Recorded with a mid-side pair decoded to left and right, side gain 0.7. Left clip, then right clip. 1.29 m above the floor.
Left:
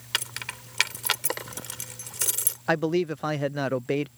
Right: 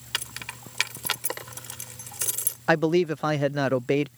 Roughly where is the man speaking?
Ahead.